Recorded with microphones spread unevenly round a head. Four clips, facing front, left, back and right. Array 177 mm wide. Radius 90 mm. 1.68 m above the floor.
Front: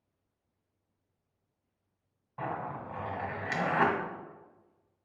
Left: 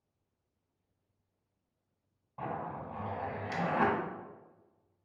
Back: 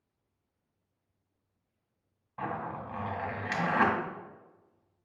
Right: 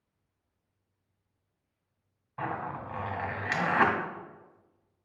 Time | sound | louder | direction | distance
2.4 | a zipper | right 4 dB, even | 160° right | 1.6 m